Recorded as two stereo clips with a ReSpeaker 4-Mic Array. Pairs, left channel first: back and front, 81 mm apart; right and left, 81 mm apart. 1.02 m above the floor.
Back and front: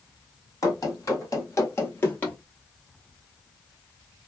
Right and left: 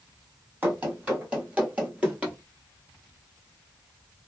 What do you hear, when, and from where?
0.6 s running footsteps: 155° left, 1.7 m; by 2.4 s 145° left, 1.1 m